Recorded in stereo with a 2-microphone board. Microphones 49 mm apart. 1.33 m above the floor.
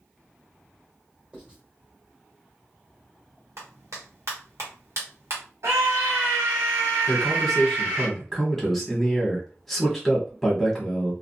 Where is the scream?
80° right, 1.1 m.